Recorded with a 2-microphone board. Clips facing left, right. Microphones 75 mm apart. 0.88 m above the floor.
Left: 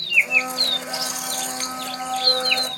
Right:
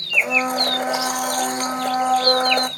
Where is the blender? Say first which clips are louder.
Right 3 dB; 55° right (ahead or behind), 1.4 m.